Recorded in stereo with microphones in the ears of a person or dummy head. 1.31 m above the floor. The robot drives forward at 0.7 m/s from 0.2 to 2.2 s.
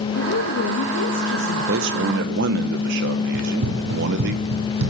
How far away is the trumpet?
I don't hear a trumpet.